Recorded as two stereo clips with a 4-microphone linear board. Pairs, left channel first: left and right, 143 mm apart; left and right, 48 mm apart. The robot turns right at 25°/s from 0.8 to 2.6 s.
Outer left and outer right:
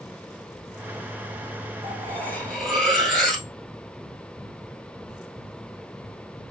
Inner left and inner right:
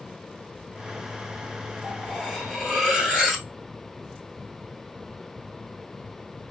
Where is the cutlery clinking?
20° left (ahead or behind), 1.4 m; by 3.5 s 5° left (ahead or behind), 1.4 m.